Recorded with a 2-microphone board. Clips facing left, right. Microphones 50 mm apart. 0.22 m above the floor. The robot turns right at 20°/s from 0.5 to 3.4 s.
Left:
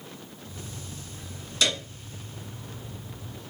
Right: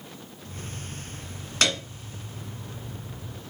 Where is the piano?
55° right (ahead or behind), 1.3 m; by 1.8 s 60° right (ahead or behind), 1.3 m.